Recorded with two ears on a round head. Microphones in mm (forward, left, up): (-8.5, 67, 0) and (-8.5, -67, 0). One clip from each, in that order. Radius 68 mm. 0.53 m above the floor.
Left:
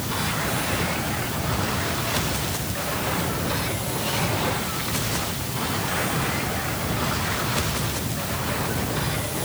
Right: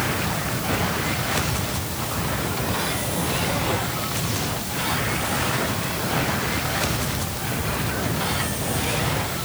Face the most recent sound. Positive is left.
No sound to turn to.